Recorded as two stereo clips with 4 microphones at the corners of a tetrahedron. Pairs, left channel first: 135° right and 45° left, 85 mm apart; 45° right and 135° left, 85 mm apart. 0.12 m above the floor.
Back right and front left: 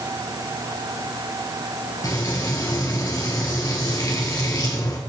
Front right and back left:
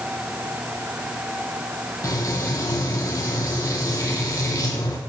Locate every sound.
2.0 s frying: 95° right, 1.3 m